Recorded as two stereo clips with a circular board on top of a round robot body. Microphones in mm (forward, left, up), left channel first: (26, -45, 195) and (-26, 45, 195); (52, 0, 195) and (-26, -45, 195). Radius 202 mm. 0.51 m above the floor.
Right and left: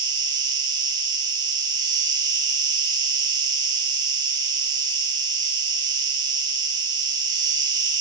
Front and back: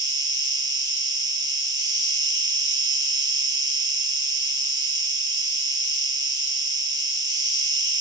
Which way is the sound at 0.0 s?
170° left.